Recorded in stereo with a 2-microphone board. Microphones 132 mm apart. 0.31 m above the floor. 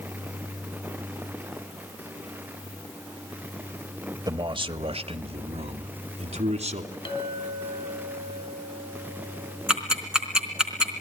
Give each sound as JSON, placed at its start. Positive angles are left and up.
{"t": 4.3, "sound": "a man speaking", "side_deg": -30, "distance_m": 0.9}
{"t": 7.0, "sound": "a clink", "side_deg": 40, "distance_m": 2.5}
{"t": 9.7, "sound": "ticking", "side_deg": -5, "distance_m": 3.5}